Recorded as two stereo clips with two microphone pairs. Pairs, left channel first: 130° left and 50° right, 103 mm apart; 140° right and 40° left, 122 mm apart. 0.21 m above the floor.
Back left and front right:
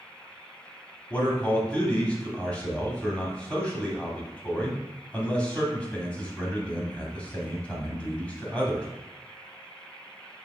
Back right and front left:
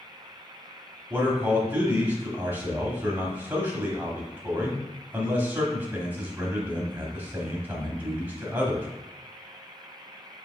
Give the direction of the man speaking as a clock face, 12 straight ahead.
9 o'clock.